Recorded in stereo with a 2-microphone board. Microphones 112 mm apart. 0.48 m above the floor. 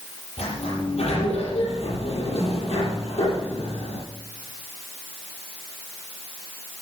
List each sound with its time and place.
0.4 s a sliding door: 85° left, 8 m